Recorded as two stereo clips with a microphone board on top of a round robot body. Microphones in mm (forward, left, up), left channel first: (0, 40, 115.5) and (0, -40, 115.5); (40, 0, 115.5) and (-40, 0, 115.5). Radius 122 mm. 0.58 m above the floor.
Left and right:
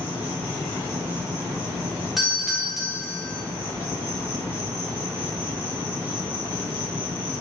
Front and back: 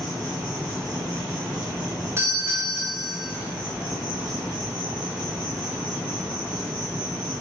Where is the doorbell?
Straight behind, 1.2 m.